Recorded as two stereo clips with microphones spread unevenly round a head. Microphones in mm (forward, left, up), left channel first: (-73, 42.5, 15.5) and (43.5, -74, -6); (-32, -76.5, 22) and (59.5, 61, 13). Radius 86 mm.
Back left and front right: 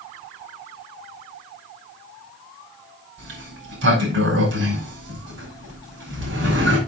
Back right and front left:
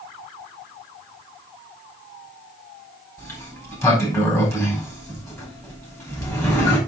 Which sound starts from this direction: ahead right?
A sliding door, at 3.2 s.